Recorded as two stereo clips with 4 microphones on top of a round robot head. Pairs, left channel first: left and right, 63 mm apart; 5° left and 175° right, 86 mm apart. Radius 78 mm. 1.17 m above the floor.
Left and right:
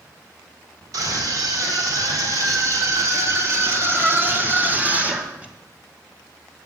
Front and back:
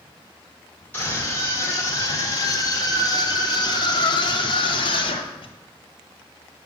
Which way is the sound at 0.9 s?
65° right.